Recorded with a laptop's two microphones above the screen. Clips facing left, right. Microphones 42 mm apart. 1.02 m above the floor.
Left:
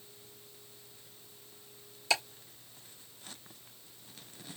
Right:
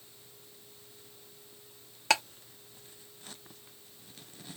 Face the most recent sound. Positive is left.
turn(degrees=-60)  # may be behind; listen again after turning